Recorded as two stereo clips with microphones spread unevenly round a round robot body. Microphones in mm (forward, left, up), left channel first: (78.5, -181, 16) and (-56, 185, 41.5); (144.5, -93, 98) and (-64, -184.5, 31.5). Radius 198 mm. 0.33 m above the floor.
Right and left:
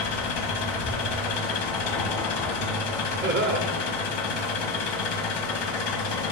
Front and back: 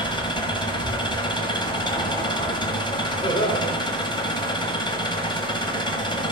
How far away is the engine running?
About 1.2 m.